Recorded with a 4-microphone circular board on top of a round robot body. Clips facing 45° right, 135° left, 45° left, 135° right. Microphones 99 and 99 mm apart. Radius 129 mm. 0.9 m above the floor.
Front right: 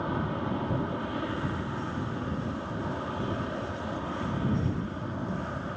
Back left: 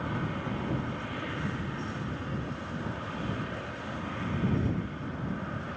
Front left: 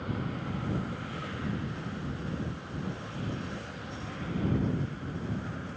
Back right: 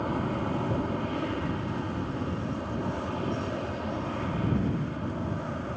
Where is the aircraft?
105° right.